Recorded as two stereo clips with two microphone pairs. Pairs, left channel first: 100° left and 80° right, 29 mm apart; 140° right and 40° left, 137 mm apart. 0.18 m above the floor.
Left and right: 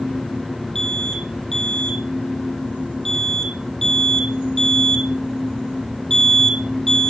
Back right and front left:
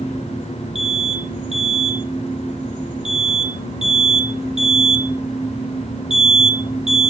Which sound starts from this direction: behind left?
An alarm, at 0.8 s.